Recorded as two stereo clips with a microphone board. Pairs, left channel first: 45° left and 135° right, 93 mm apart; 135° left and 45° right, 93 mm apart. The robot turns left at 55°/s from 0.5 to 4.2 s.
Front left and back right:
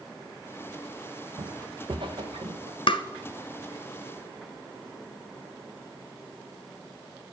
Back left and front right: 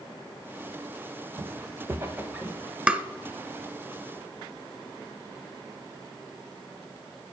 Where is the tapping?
30° left, 0.9 m; by 3.0 s 20° left, 0.9 m.